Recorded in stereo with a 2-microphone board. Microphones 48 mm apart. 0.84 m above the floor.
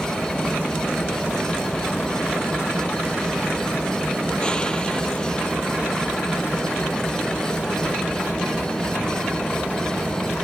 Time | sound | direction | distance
0.0 | an engine running | 20° left (ahead or behind) | ?